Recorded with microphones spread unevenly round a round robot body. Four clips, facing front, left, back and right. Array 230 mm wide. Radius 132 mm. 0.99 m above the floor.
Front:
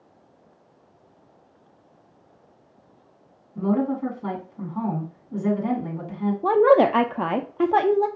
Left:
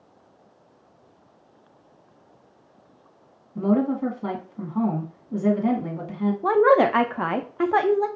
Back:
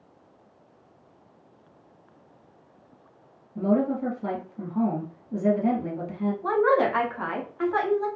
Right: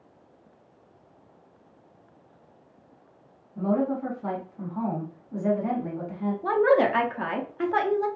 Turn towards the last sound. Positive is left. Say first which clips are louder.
# left 4 dB, front 6 dB
turn(degrees=25)